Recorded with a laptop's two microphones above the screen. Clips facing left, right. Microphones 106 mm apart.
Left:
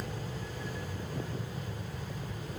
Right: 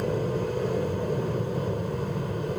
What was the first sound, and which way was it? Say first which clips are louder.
An aircraft: right 13 dB; 60° right (ahead or behind).